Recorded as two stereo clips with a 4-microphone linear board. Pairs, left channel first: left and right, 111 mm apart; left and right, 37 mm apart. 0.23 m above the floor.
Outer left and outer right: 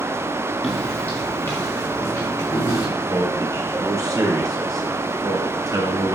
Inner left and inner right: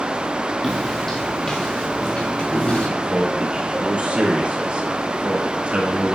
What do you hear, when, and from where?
0.6 s footsteps: 5° left (ahead or behind), 1.8 m; by 2.9 s 30° left (ahead or behind), 4 m
3.0 s a man speaking: 30° right (ahead or behind), 3 m